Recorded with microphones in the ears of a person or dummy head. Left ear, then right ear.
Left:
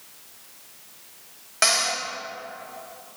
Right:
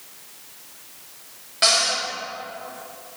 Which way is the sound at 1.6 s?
35° left (ahead or behind).